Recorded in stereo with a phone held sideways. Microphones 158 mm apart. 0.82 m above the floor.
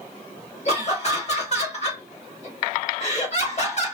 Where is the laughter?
45° left (ahead or behind), 1.7 m.